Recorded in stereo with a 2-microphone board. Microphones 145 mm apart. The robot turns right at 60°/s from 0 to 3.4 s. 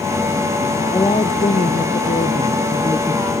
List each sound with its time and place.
0.9 s a woman speaking: 25° left; by 3.3 s 170° left